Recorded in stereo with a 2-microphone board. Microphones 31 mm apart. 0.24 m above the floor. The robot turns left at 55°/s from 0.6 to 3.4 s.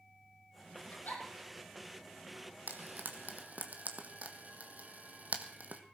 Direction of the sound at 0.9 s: 80° left.